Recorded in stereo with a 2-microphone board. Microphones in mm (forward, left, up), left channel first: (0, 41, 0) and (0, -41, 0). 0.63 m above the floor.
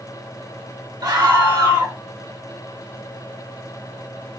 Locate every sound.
1.0 s a scream: 55° right (ahead or behind), 1.6 m